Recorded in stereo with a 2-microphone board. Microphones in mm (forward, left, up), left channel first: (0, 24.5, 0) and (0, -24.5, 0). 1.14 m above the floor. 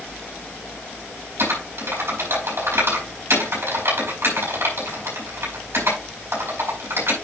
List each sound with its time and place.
1.4 s typing on a keyboard: 60° right (ahead or behind), 5.5 m